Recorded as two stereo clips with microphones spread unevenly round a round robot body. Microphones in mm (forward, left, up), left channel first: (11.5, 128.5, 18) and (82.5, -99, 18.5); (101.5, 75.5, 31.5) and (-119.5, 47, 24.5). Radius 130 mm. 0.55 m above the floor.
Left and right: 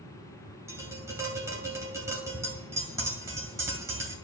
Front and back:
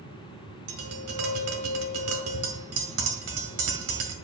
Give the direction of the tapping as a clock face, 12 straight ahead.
5 o'clock.